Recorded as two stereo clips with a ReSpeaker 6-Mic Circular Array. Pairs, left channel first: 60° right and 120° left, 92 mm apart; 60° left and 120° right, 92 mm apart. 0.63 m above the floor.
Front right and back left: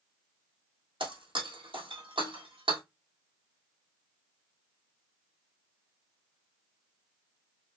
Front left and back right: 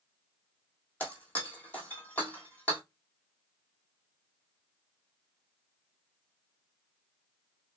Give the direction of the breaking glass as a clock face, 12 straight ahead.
8 o'clock.